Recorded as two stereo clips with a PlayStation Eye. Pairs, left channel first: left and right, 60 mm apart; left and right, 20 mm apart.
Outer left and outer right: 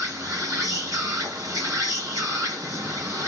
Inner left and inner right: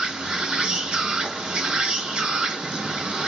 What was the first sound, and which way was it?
An insect, 75° right (ahead or behind).